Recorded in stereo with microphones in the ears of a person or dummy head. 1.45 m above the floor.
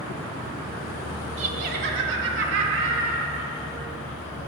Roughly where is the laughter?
Right.